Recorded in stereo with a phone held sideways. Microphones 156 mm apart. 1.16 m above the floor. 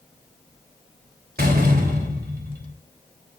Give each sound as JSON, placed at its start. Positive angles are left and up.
{"t": 1.4, "sound": "a door slam", "side_deg": -90, "distance_m": 3.0}